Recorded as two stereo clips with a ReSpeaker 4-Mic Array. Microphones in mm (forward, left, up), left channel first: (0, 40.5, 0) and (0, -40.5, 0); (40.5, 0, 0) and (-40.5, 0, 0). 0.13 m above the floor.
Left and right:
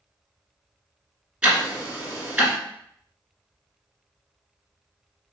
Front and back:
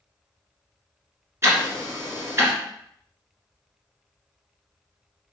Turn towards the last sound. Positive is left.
turn(degrees=-160)